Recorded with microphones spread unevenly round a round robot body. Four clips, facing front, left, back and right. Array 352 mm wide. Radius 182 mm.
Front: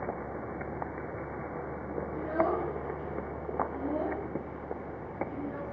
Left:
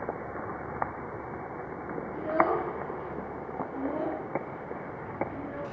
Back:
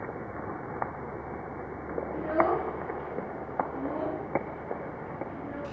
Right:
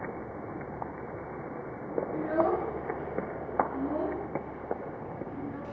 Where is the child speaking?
95° right, 5 m; by 5.6 s 45° right, 3.5 m.